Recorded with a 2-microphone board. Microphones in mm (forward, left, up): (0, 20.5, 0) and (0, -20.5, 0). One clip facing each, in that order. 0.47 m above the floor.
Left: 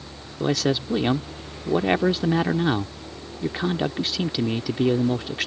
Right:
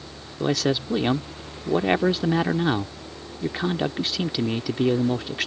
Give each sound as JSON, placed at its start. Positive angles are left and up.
{"t": 0.4, "sound": "a man speaking", "side_deg": 0}